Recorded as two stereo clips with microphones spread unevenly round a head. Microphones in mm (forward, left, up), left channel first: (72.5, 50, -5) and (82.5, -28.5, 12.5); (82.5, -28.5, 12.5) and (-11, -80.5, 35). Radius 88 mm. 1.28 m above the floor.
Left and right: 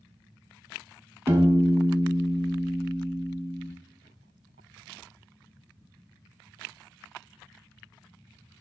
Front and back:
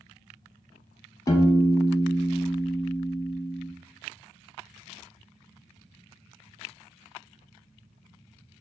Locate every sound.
1.3 s a piano: 35° right, 0.7 m